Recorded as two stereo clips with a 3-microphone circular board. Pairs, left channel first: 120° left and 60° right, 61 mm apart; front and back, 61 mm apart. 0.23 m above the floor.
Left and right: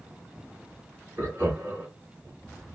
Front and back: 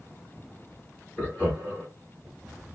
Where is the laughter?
40° right, 1.7 m.